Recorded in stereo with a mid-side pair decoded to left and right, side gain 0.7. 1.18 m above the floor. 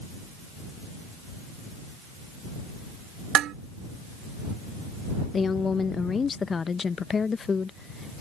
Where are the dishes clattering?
50° right.